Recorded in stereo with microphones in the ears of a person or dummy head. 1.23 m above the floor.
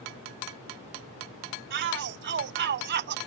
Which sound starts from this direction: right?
A shout, at 1.7 s.